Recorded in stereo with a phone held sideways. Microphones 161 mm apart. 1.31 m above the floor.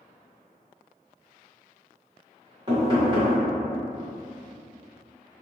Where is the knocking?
30° right (ahead or behind), 1.7 m.